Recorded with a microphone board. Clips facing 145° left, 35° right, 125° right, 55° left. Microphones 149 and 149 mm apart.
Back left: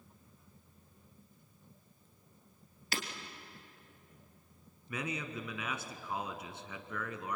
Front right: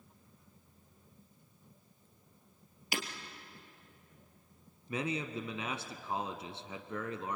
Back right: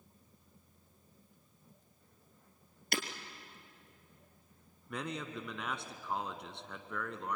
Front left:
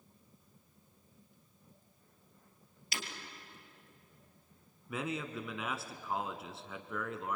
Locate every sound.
2.9 s breaking glass: 110° right, 2 m
4.9 s a man speaking: 30° right, 1.2 m